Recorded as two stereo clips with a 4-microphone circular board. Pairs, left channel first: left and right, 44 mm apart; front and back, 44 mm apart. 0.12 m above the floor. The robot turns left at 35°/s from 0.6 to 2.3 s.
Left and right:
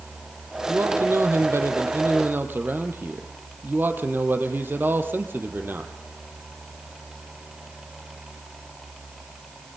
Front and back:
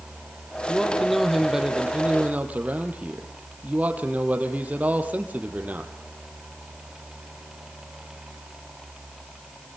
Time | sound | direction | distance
0.7 | a man speaking | 70° right | 3.5 m